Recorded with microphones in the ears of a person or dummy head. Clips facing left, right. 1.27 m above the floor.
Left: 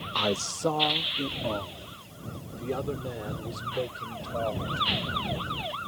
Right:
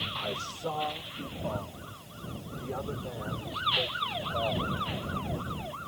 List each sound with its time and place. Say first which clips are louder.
0.1 s a man speaking: left 10 dB; 75° left (ahead or behind); by 5.3 s 35° left (ahead or behind)